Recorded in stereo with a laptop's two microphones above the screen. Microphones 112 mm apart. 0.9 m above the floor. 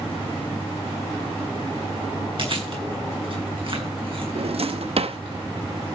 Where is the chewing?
55° right (ahead or behind), 7 m.